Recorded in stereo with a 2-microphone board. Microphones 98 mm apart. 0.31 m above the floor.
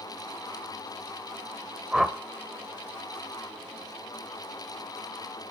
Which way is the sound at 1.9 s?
5° right (ahead or behind).